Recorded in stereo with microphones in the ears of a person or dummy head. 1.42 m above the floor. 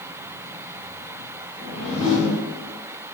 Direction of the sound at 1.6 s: 15° left (ahead or behind).